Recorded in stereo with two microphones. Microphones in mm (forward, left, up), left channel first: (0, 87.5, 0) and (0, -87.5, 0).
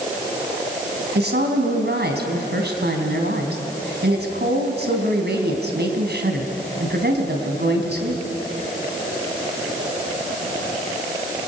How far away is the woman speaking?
About 3.5 m.